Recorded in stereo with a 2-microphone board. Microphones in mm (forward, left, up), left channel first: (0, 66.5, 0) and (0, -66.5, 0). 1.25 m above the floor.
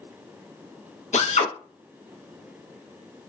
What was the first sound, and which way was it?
A drill, 60° left (ahead or behind).